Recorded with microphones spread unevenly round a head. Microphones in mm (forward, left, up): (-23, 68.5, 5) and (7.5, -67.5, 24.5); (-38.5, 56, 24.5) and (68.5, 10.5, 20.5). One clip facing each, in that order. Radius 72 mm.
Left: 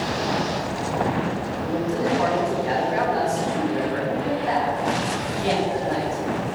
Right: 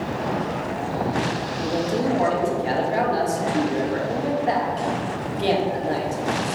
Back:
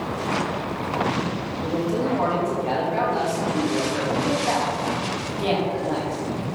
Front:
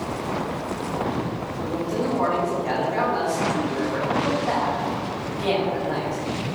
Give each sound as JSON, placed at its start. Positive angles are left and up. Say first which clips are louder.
{"t": 1.6, "sound": "a man speaking", "louder": "right 2 dB, back 2 dB", "azimuth_deg": -130, "distance_m": 3.5}